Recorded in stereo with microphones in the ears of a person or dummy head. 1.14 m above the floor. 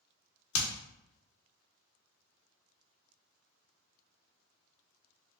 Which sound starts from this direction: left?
Hammering, at 0.5 s.